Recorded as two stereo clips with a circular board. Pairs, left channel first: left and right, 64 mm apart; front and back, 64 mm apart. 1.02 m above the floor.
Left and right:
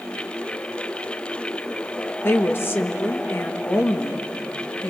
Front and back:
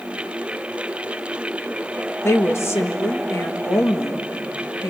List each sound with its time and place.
2.2 s a woman speaking: 40° left, 1.5 m